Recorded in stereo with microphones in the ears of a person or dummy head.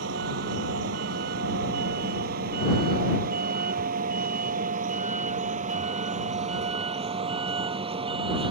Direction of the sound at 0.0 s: 75° right (ahead or behind).